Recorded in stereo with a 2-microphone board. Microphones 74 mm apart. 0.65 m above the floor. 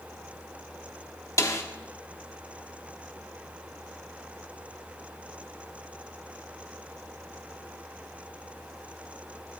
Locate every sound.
1.4 s a snare drum: 45° left (ahead or behind), 1.4 m